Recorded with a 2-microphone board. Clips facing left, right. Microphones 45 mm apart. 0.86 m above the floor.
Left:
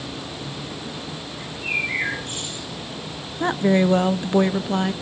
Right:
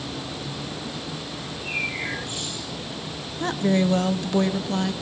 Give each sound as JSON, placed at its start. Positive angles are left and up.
{"t": 1.4, "sound": "a bird", "side_deg": 55, "distance_m": 9.5}
{"t": 3.4, "sound": "a woman speaking", "side_deg": 20, "distance_m": 1.1}